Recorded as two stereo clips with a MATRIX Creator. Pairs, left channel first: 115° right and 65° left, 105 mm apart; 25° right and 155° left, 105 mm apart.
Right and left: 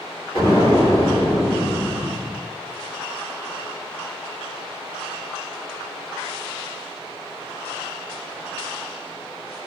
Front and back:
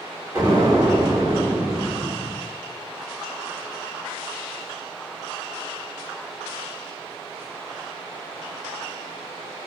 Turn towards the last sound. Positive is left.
turn(degrees=-135)